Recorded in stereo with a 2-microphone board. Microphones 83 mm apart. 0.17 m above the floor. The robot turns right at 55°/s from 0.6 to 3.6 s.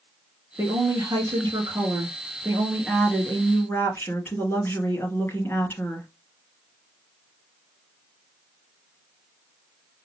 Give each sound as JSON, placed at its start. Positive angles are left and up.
{"t": 0.6, "sound": "a woman speaking", "azimuth_deg": -130, "distance_m": 2.5}